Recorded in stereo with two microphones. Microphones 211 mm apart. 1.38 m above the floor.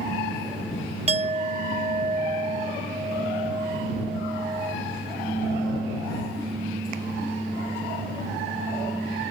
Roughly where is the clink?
Right.